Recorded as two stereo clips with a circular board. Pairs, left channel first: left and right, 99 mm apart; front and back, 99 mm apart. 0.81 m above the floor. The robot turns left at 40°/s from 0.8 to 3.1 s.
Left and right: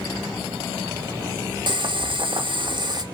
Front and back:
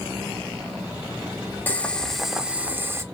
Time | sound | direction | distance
1.7 | boiling | 70° right | 0.5 m